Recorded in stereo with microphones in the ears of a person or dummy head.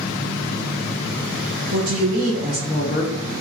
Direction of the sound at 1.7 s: 60° right (ahead or behind).